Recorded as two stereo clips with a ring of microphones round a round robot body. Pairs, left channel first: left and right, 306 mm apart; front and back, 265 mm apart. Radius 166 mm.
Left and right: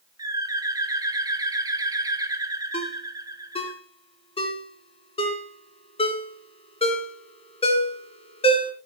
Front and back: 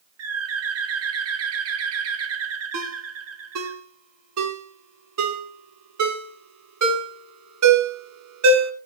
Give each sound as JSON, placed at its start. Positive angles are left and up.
{"t": 0.2, "sound": "a bird", "azimuth_deg": -165, "distance_m": 1.6}
{"t": 2.7, "sound": "a ringtone", "azimuth_deg": 160, "distance_m": 2.5}